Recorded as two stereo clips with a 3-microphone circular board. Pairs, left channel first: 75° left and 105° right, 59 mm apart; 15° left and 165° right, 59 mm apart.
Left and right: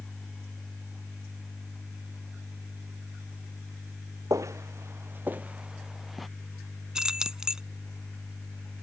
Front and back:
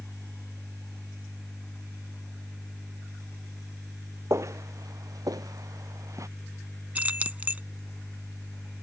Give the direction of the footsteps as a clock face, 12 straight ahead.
4 o'clock.